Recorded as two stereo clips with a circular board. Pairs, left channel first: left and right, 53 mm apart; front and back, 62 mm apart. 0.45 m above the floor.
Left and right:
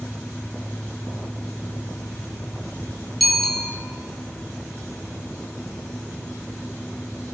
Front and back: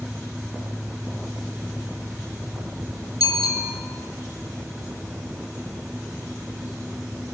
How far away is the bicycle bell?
About 5.5 m.